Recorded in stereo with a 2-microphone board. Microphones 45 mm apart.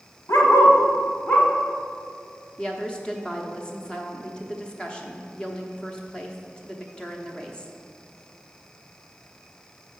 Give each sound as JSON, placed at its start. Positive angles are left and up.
{"t": 0.3, "sound": "a dog barking", "side_deg": 85, "distance_m": 1.0}
{"t": 2.6, "sound": "a woman speaking", "side_deg": 20, "distance_m": 0.9}